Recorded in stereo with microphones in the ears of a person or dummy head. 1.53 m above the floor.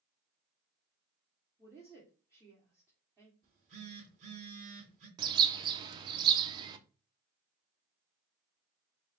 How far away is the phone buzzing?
About 3 m.